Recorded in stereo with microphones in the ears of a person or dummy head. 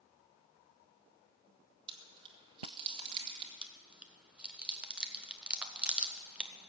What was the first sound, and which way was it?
Chewing, 30° right (ahead or behind).